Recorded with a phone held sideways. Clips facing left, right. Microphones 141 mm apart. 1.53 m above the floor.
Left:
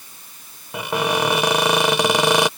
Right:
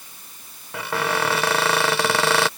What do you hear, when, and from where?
0.7 s a cupboard door: 15° left (ahead or behind)